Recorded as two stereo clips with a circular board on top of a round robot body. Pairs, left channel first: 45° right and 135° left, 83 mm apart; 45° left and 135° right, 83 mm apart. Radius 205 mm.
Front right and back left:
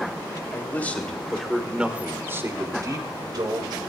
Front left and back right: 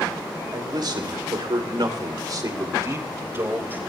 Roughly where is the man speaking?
Right.